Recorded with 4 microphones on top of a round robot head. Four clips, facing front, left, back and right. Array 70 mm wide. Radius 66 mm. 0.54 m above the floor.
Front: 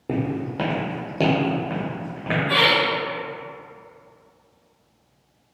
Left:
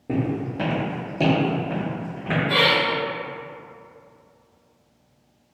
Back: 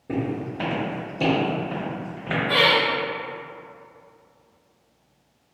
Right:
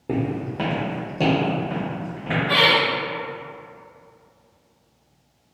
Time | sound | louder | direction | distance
0.1 | footsteps | even, front 2 dB | 30° right | 1.1 m
2.5 | laughter | right 2 dB, even | 55° right | 1.3 m